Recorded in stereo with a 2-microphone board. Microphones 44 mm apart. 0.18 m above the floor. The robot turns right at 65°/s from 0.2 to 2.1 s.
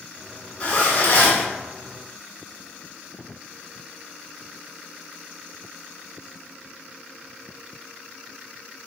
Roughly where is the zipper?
Ahead left.